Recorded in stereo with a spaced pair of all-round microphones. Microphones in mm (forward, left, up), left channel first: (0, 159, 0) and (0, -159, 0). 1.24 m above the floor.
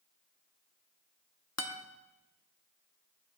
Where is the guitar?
50° left (ahead or behind), 1.0 m.